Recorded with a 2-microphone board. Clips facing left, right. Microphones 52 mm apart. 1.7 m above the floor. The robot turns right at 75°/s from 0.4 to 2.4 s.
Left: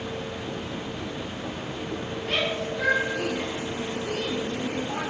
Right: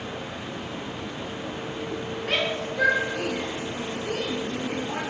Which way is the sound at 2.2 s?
75° right (ahead or behind).